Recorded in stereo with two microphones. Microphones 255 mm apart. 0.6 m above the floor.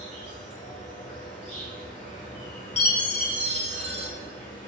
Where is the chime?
70° left (ahead or behind), 1.2 m.